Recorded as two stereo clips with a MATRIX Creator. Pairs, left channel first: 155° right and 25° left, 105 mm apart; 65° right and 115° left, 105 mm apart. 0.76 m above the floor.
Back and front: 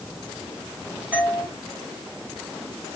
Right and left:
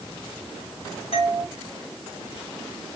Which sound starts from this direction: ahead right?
A doorbell, at 1.1 s.